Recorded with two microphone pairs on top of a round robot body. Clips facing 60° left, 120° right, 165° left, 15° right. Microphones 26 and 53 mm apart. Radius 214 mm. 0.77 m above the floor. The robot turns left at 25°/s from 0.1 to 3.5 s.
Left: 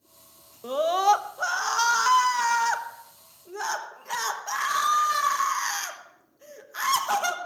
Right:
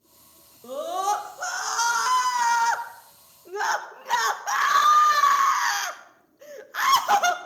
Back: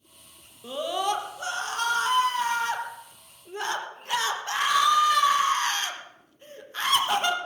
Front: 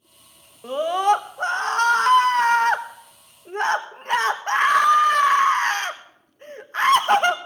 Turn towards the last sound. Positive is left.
turn(degrees=-45)